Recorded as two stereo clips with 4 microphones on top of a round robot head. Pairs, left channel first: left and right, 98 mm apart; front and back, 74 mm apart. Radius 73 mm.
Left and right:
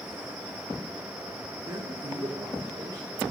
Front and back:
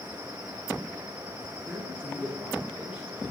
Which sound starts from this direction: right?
A man speaking, at 1.7 s.